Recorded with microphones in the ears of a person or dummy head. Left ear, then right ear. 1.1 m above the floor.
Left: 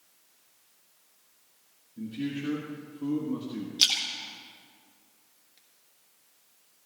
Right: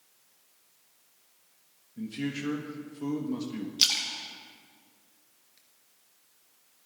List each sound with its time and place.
2.0 s a man speaking: 50° right (ahead or behind), 1.3 m
3.8 s a splash: centre (ahead or behind), 1.4 m